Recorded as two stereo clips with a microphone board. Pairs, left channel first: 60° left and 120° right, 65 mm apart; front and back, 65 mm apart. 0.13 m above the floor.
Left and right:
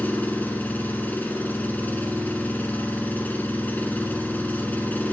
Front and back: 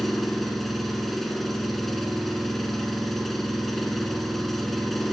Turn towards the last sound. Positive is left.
turn(degrees=85)